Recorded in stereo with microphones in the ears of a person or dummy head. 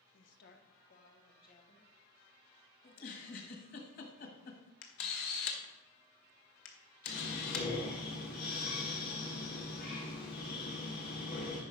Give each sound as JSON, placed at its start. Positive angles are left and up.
{"t": 0.1, "sound": "a woman speaking", "side_deg": 65, "distance_m": 0.8}
{"t": 2.8, "sound": "a giggle", "side_deg": 50, "distance_m": 1.5}
{"t": 4.8, "sound": "a camera shutter", "side_deg": 60, "distance_m": 1.3}
{"t": 7.1, "sound": "breathing", "side_deg": 45, "distance_m": 1.9}